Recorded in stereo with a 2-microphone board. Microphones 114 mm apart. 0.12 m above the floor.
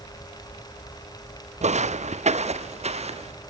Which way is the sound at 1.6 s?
80° right.